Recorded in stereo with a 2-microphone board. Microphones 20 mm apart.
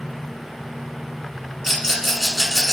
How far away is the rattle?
About 1.6 m.